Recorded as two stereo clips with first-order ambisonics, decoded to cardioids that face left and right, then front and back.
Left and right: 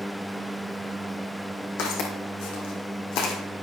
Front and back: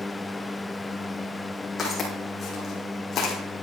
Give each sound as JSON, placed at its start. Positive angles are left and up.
{"t": 1.8, "sound": "footsteps", "azimuth_deg": 75, "distance_m": 3.0}